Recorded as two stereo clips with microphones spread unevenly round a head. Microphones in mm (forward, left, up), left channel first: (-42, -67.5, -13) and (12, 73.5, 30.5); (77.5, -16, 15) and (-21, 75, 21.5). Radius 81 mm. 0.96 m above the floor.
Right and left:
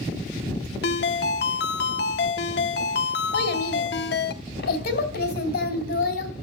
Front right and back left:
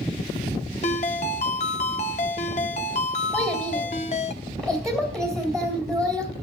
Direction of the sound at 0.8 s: 85° right.